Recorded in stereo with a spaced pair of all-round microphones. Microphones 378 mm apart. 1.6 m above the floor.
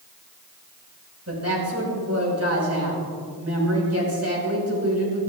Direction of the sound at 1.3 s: 40° right (ahead or behind).